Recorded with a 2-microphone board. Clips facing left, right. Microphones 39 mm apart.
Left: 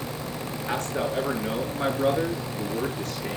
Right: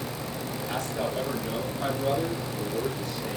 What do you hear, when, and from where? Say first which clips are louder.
0.7 s a man speaking: left 3 dB; 45° left (ahead or behind), 7 m; by 3.4 s 60° left (ahead or behind), 6.5 m